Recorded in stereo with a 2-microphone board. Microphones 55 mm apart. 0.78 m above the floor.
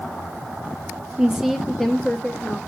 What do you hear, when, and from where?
1.2 s a woman speaking: 15° right (ahead or behind), 0.8 m; by 2.6 s 20° left (ahead or behind), 1.3 m